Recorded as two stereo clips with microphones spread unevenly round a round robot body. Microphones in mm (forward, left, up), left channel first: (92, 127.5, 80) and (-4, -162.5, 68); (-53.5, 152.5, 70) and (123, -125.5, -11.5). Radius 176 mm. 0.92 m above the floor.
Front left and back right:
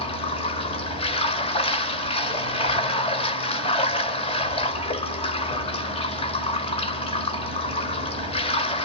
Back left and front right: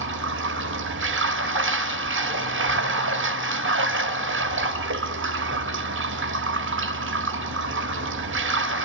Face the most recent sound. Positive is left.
turn(degrees=0)